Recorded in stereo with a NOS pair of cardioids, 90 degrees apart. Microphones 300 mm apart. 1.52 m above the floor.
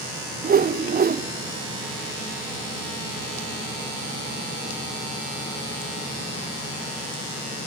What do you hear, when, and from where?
0.4 s a whoosh: 30° right, 1.1 m